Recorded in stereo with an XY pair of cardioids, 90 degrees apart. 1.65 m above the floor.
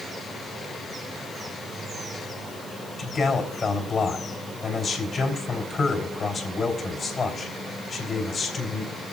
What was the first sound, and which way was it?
A man speaking, 45° left.